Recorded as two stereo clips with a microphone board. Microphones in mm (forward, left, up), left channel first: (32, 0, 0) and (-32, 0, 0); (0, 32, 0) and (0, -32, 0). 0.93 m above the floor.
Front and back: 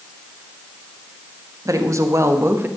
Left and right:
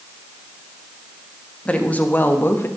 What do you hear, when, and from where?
1.6 s a woman speaking: 160° left, 1.5 m; by 2.7 s 135° left, 1.2 m